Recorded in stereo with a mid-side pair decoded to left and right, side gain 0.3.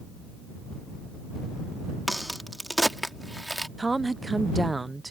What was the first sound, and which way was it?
A crack, 5° right.